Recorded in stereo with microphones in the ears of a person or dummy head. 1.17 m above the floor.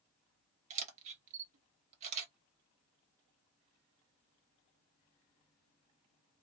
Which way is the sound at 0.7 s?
35° right (ahead or behind).